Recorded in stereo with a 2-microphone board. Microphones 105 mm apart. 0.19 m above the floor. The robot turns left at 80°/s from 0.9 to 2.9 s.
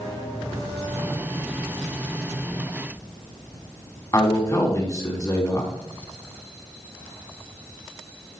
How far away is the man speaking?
About 1.9 m.